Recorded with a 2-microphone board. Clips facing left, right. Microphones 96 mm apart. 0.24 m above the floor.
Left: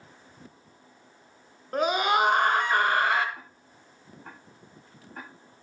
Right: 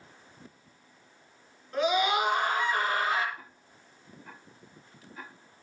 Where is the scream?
50° left (ahead or behind), 3.5 m; by 3.2 s 70° left (ahead or behind), 4 m.